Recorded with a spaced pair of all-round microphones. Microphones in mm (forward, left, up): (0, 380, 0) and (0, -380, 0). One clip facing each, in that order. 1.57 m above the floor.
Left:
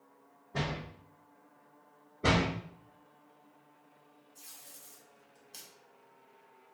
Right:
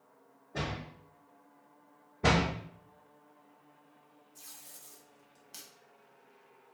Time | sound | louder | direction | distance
0.5 | a door slam | left 2 dB | 40° left (ahead or behind) | 0.7 m
2.2 | a door slam | even | 35° right (ahead or behind) | 0.5 m
4.3 | tape being pulled | even | 40° right (ahead or behind) | 0.9 m